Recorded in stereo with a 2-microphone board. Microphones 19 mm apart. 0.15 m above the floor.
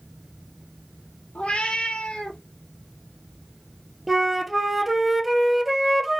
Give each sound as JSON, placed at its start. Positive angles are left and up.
{"t": 1.4, "sound": "a cat meowing", "side_deg": 75, "distance_m": 1.0}
{"t": 4.1, "sound": "a flute", "side_deg": -5, "distance_m": 1.0}